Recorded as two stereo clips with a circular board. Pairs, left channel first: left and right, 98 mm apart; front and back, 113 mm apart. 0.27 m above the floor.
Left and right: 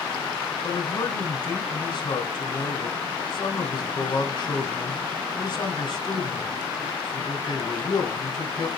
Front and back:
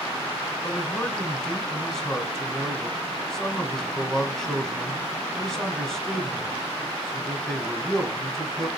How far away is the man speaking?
About 1.5 m.